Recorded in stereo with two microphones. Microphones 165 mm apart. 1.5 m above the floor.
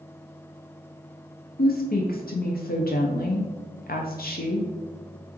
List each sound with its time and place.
1.6 s a woman speaking: 65° left (ahead or behind), 0.5 m